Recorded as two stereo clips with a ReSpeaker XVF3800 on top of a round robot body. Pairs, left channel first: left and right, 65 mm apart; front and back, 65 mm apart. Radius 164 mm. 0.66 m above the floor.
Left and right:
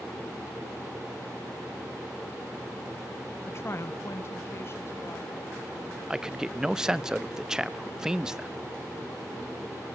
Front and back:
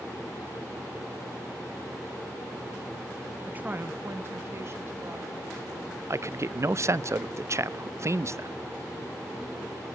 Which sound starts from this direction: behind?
A man speaking, at 6.1 s.